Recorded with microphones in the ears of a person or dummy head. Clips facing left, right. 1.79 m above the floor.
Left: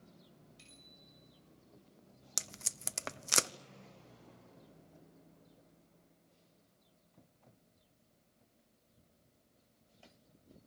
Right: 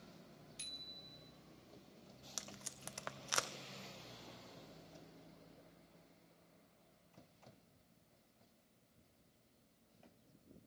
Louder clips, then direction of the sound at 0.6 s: Right 2 dB; 75° right (ahead or behind).